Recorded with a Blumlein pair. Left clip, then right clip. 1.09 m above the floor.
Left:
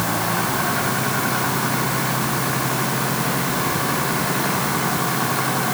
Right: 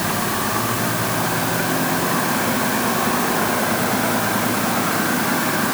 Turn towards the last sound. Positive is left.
No sound to turn to.